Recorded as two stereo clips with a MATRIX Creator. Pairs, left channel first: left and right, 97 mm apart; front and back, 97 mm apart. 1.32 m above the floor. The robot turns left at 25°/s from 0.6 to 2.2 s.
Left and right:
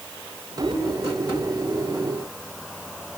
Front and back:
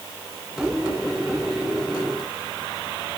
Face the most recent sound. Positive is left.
No sound to turn to.